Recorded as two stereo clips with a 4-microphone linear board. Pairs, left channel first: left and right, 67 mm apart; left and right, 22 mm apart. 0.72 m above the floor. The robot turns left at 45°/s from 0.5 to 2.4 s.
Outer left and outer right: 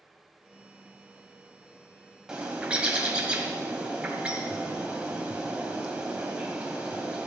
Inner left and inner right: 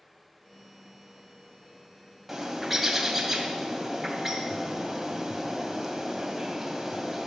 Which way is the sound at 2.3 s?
10° right (ahead or behind).